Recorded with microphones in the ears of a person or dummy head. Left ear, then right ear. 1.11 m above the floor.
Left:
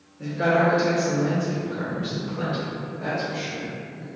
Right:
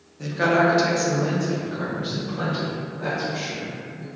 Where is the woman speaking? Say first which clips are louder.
Right 1 dB; 25° right (ahead or behind), 0.8 m; by 4.1 s 20° left (ahead or behind), 1.5 m.